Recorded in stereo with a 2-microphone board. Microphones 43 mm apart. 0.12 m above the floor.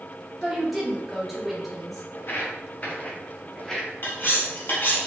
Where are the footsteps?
50° left (ahead or behind), 1.9 m; by 5.0 s 15° right (ahead or behind), 2.5 m.